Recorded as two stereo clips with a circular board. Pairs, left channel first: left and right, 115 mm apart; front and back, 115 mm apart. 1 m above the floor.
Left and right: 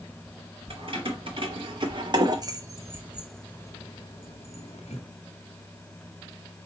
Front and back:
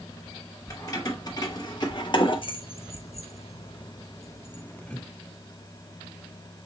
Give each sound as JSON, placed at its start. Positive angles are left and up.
{"t": 0.7, "sound": "keys jangling", "azimuth_deg": -55, "distance_m": 2.0}